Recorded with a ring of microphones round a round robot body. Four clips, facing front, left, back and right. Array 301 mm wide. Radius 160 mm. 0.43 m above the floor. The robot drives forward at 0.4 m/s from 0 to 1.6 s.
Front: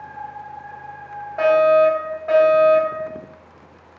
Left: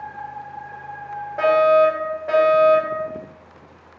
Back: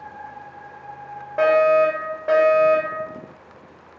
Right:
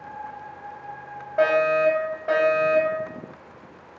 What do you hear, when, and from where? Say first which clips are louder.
1.4 s a fire alarm: left 5 dB, front 2 dB; 175° right, 3 m